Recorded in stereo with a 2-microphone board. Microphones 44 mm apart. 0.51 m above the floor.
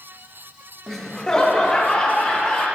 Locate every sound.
0.9 s laughter: 5° left (ahead or behind), 0.7 m; by 2.6 s 25° left (ahead or behind), 2.5 m